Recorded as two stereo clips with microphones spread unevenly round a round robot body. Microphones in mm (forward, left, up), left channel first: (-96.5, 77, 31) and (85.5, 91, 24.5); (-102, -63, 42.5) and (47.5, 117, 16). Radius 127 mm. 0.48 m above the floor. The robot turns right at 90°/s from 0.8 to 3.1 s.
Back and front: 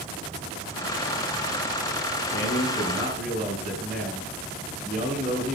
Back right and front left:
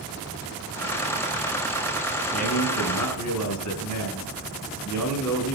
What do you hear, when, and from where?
2.3 s a man speaking: 165° left, 7 m; by 5.5 s 125° right, 7 m